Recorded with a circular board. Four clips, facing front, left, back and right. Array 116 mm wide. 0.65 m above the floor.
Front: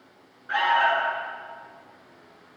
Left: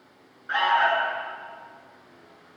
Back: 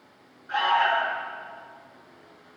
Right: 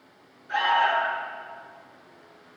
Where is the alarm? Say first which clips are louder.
Left 1 dB, front 1 dB; 70° left, 9 m.